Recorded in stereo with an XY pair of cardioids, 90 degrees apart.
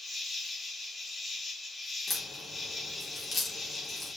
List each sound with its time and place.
0.0 s an insect: 35° left, 4.5 m
2.1 s a crack: 55° left, 4.5 m